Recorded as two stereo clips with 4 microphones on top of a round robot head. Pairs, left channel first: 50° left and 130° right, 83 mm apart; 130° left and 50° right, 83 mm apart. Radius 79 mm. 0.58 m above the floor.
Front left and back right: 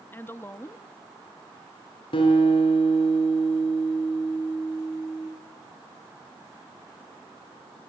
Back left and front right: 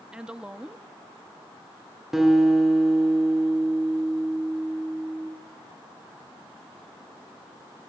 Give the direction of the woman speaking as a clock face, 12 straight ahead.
11 o'clock.